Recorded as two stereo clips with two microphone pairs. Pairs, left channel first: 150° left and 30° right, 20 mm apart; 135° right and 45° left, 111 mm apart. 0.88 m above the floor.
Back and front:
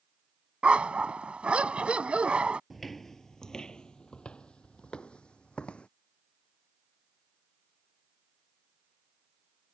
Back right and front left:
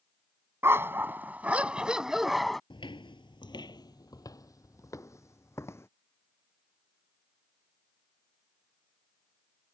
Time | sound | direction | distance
0.6 | a dog barking | 25° right | ?
2.7 | footsteps | 130° right | ?